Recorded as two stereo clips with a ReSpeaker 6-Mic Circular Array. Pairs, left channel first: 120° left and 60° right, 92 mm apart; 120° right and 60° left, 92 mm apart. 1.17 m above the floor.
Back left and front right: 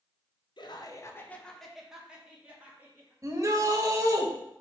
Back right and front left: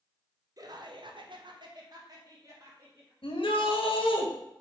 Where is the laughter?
100° left, 1.0 m; by 3.1 s 5° left, 2.5 m.